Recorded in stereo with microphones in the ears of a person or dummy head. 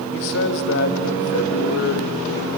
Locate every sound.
0.1 s a man speaking: 65° left (ahead or behind), 2 m